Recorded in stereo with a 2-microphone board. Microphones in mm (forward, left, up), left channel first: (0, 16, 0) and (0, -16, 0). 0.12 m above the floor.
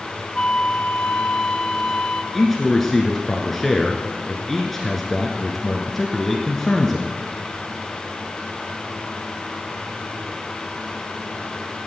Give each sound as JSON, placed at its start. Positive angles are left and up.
{"t": 0.3, "sound": "a flute", "side_deg": 30, "distance_m": 0.6}
{"t": 2.3, "sound": "a man speaking", "side_deg": 10, "distance_m": 1.3}